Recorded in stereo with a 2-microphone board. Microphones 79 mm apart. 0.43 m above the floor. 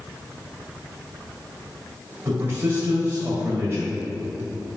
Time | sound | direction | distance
2.2 | a man speaking | 30° right (ahead or behind) | 2 m